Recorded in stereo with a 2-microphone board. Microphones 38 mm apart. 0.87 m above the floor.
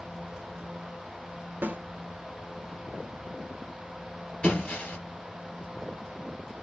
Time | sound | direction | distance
1.6 | a snare drum | 55° right (ahead or behind) | 0.8 m
4.4 | breaking glass | 35° left (ahead or behind) | 2.5 m